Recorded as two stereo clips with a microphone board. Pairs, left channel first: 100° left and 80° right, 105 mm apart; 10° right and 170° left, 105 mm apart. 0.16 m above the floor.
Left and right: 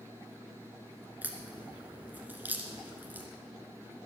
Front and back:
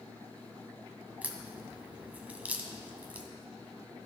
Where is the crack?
130° right, 1.4 m.